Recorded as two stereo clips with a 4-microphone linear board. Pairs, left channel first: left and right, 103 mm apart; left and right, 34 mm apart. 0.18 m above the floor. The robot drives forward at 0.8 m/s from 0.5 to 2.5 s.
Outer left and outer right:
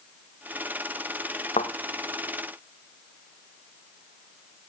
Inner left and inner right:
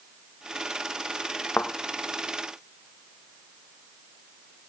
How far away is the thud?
About 2.5 m.